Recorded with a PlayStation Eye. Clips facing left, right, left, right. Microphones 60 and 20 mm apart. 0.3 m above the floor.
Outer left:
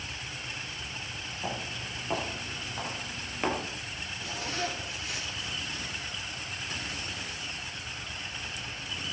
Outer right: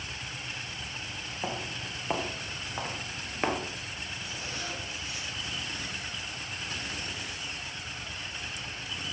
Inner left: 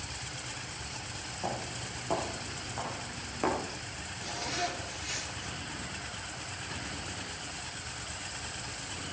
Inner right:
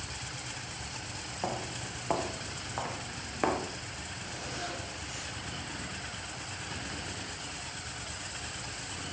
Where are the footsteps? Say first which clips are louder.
Outer right 1 dB, inner right 1 dB; 25° right (ahead or behind), 4.5 m; by 3.6 s 10° right (ahead or behind), 3 m.